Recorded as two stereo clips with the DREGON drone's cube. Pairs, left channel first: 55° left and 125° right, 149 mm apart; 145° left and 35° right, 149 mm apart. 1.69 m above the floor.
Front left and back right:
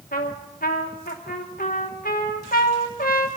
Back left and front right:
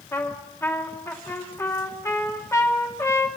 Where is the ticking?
No ticking in this recording.